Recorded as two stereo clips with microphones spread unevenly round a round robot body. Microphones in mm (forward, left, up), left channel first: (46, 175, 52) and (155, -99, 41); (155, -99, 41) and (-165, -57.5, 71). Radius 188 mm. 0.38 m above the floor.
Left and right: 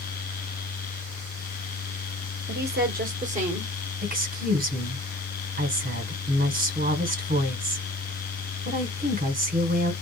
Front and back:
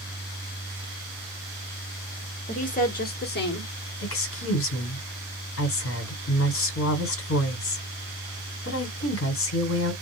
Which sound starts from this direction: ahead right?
A woman speaking, at 2.5 s.